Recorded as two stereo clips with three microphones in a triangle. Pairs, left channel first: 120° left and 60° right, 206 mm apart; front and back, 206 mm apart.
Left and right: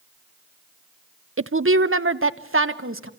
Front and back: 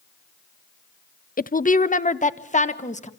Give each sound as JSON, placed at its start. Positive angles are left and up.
{"t": 1.4, "sound": "a woman speaking", "azimuth_deg": -50, "distance_m": 0.6}